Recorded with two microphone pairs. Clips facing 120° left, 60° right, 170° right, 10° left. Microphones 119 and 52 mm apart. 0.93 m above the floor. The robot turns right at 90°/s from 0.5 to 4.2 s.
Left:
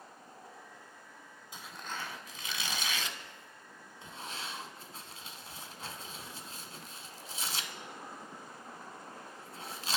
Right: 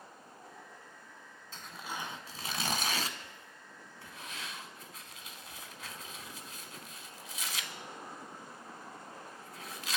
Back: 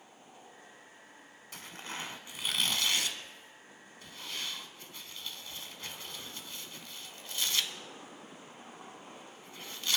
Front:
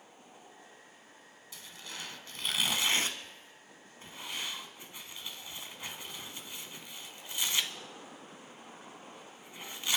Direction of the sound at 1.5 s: 165° right.